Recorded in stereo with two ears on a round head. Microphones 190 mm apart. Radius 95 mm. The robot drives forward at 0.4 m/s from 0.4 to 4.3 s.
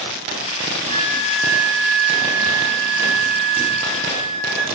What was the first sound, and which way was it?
A flute, 85° right.